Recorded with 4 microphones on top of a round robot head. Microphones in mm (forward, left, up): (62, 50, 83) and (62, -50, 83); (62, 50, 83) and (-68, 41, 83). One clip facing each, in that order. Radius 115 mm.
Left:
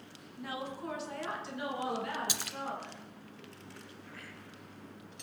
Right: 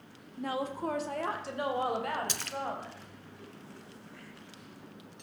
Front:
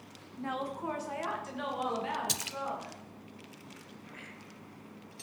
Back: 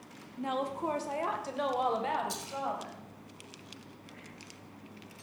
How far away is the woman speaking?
About 1.3 m.